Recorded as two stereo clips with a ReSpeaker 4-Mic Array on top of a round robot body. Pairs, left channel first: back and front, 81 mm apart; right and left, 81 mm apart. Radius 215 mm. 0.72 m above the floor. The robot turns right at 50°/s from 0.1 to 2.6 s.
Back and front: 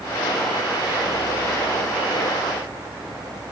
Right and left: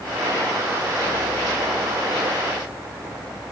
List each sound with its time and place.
Only background noise.